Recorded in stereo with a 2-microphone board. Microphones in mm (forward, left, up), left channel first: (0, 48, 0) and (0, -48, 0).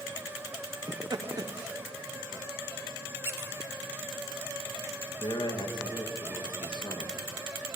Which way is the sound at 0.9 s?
45° right (ahead or behind).